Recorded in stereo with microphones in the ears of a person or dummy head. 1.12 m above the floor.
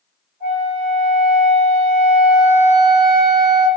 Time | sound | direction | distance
0.4 | a flute | 55° right (ahead or behind) | 1.9 m